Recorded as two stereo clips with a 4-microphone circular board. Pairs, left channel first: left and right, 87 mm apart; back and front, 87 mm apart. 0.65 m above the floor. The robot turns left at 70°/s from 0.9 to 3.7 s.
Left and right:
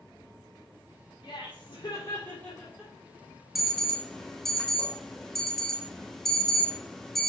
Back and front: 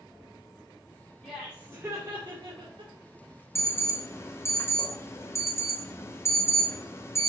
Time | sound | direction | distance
1.2 | laughter | 110° left | 2.5 m
3.5 | an alarm | straight behind | 1.0 m